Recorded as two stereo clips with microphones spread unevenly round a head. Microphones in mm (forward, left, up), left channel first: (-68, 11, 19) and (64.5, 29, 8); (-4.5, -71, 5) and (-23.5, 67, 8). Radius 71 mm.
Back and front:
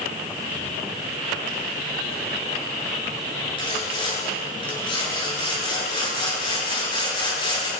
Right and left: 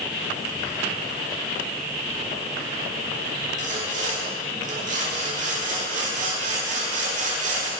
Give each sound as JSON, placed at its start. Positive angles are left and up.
{"t": 3.6, "sound": "sawing", "azimuth_deg": 135, "distance_m": 10.0}